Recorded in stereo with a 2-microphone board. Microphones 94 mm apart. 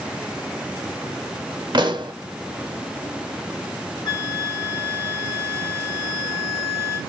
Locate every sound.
1.7 s a pop: 55° right (ahead or behind), 0.8 m
4.0 s a flute: 55° left (ahead or behind), 1.4 m